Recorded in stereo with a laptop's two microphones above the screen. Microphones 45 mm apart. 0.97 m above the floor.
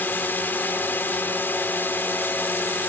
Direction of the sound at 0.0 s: 50° left (ahead or behind).